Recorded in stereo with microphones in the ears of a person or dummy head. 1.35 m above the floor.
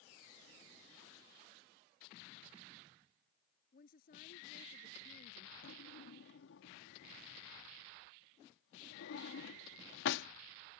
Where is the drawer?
80° left.